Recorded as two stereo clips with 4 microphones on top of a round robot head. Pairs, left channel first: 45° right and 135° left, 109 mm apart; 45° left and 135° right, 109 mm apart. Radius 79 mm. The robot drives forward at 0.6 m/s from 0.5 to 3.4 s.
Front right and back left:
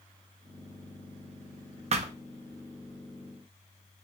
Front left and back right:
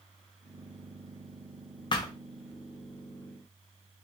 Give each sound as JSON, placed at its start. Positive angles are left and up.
{"t": 1.9, "sound": "a thud", "azimuth_deg": 100, "distance_m": 0.5}